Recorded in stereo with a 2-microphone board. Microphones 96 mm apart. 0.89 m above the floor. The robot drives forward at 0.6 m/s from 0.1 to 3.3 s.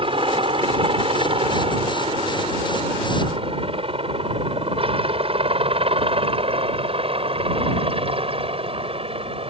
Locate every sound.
0.0 s a helicopter: 65° right (ahead or behind); by 9.5 s 70° right (ahead or behind)